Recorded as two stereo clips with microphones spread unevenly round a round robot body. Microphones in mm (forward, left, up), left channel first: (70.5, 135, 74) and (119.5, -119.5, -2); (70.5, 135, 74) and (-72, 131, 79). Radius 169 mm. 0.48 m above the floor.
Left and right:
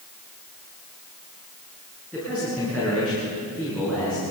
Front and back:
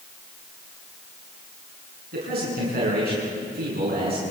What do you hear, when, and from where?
2.1 s a man speaking: 170° right, 7 m